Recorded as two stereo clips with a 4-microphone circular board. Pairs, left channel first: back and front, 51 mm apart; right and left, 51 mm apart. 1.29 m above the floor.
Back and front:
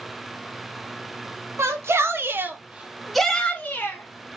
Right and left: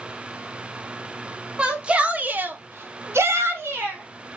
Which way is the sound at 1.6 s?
20° left.